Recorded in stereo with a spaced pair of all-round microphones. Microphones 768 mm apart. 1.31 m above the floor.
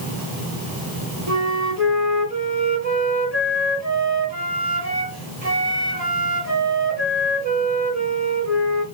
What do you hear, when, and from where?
1.3 s a flute: 50° right (ahead or behind), 2 m